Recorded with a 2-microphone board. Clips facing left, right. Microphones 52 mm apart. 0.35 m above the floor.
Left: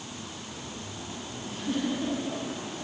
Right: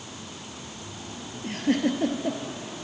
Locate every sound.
1.4 s a giggle: 65° right (ahead or behind), 2.5 m